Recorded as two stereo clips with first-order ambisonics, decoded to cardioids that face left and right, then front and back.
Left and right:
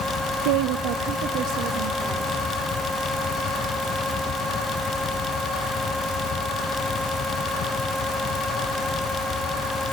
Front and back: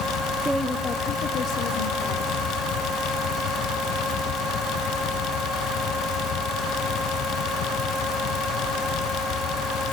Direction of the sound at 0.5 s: 100° right.